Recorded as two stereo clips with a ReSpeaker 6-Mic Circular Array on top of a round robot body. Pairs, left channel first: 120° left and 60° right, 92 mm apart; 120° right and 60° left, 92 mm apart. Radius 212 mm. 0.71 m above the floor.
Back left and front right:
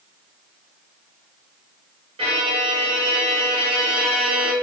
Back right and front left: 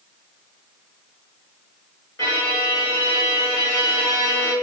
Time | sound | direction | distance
2.2 | a violin | 65° right | 2 m